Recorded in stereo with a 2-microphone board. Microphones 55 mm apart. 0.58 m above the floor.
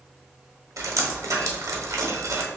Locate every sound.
0.8 s dripping: 80° right, 0.8 m